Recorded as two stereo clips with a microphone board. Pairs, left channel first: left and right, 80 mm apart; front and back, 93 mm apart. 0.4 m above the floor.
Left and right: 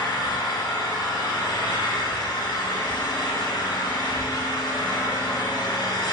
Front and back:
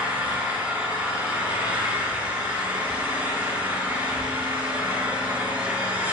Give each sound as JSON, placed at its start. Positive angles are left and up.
{"t": 0.0, "sound": "an engine running", "azimuth_deg": 110, "distance_m": 3.5}